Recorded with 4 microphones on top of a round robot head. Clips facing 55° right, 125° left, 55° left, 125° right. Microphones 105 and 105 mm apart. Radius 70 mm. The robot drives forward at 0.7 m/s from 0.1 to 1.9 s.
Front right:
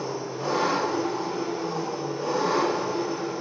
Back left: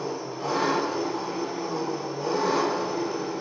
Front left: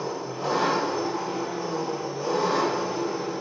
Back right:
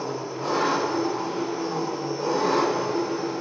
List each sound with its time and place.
0.0 s an engine running: 25° right, 1.4 m; by 3.4 s 125° right, 1.0 m